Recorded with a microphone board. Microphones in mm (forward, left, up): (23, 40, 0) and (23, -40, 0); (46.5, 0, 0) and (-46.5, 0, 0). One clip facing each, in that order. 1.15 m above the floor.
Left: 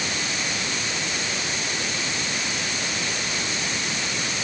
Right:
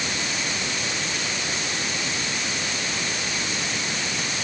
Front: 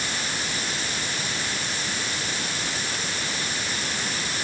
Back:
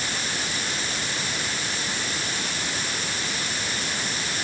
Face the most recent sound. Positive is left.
No sound to turn to.